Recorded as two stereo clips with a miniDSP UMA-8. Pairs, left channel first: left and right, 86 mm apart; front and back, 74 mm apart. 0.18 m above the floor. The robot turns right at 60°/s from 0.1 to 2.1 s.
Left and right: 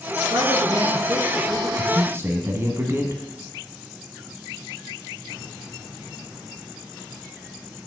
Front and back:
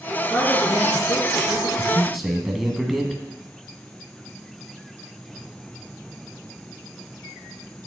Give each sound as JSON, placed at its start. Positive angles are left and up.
{"t": 0.3, "sound": "a man speaking", "azimuth_deg": -75, "distance_m": 3.0}
{"t": 1.8, "sound": "a man speaking", "azimuth_deg": -110, "distance_m": 1.4}